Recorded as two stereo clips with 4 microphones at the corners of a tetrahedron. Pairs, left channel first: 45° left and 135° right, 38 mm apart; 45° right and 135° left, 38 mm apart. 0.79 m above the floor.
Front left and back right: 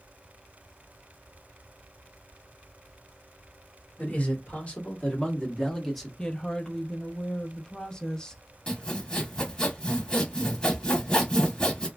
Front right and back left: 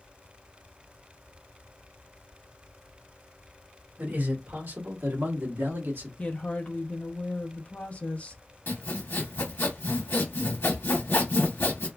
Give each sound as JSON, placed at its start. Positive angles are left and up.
{"t": 4.0, "sound": "a man speaking", "azimuth_deg": 95, "distance_m": 1.9}
{"t": 6.2, "sound": "a woman speaking", "azimuth_deg": -20, "distance_m": 0.7}
{"t": 8.7, "sound": "sawing", "azimuth_deg": -25, "distance_m": 1.1}